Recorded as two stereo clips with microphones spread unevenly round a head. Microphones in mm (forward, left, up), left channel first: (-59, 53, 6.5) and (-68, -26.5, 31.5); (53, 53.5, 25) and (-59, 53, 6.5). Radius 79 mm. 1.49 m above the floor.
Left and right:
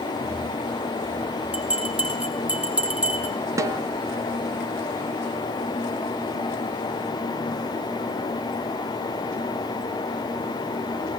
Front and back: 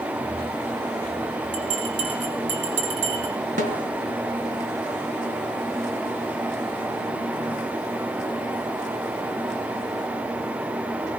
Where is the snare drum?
145° right, 1.2 m.